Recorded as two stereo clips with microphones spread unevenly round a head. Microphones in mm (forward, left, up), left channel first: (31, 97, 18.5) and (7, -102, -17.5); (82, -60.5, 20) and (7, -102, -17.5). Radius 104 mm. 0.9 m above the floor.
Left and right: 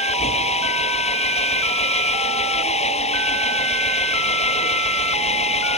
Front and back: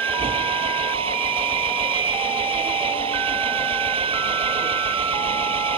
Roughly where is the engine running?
Behind left.